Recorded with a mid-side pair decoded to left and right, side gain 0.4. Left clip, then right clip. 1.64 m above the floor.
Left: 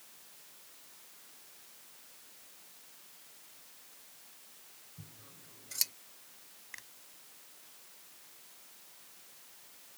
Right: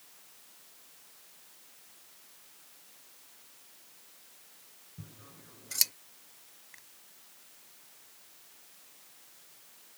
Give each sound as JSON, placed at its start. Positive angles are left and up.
{"t": 5.0, "sound": "scissors", "azimuth_deg": -45}
{"t": 6.7, "sound": "a finger snap", "azimuth_deg": 55}